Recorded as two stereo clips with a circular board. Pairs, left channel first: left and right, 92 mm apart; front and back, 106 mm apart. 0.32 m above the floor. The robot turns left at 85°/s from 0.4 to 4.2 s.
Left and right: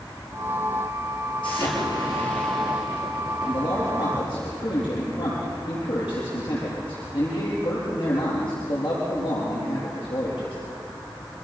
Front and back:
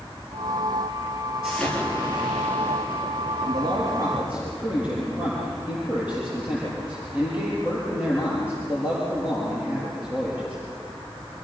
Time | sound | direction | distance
1.4 | an explosion | 95° left | 7.5 m
3.5 | a man speaking | 170° left | 7 m